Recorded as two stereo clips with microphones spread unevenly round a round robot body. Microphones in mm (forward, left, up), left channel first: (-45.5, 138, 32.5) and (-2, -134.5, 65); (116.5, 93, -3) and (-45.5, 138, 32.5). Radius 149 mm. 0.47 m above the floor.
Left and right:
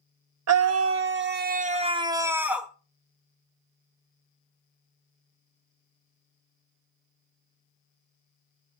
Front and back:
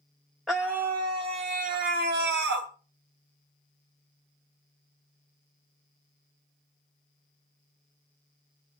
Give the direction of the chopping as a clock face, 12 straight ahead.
I don't hear chopping.